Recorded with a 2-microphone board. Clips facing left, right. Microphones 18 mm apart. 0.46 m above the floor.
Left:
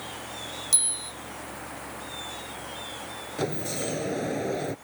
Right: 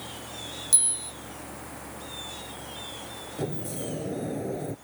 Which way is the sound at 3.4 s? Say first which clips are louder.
Left 3 dB; 50° left (ahead or behind).